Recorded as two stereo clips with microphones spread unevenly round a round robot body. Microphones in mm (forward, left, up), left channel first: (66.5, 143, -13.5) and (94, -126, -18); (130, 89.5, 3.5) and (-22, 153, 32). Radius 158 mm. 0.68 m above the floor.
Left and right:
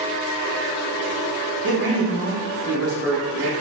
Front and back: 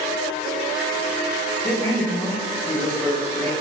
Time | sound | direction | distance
1.6 | a man speaking | 85° right | 0.7 m